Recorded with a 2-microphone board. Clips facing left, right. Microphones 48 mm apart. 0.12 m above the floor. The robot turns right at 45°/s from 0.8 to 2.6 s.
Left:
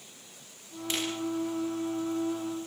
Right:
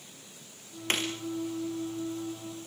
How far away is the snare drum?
About 5 m.